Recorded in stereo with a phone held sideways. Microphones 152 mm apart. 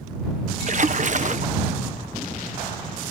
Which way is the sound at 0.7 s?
55° right (ahead or behind).